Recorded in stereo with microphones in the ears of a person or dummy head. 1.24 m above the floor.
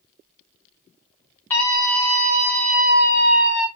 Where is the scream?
5° left (ahead or behind), 4 m; by 3.7 s 15° right (ahead or behind), 4 m.